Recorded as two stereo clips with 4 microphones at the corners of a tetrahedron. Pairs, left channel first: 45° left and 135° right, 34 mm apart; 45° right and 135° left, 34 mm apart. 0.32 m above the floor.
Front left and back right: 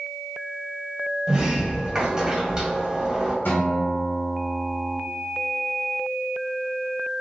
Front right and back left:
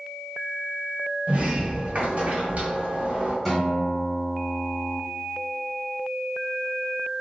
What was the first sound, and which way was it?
A sliding door, 165° left.